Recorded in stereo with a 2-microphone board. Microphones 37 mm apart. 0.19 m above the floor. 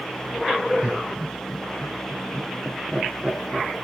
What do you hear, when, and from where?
0.8 s laughter: 40° right (ahead or behind), 3.5 m; by 3.7 s 20° right (ahead or behind), 4 m